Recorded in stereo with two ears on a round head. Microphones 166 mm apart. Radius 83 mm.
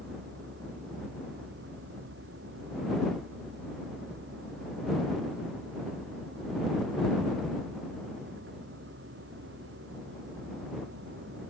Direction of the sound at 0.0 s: 65° right (ahead or behind).